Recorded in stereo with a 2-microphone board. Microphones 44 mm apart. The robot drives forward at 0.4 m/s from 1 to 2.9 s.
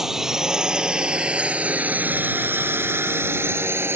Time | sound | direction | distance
0.0 | a drone | 10° right (ahead or behind) | ?